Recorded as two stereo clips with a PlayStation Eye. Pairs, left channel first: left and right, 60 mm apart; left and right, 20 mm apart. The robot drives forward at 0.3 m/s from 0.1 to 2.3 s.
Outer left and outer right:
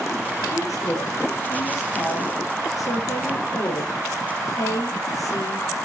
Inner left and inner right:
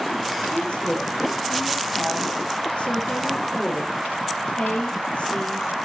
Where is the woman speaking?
65° left (ahead or behind), 3.5 m.